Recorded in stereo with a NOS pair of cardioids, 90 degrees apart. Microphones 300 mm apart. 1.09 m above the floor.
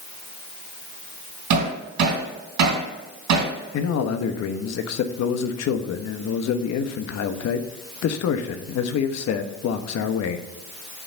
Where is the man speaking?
60° left, 1.1 m.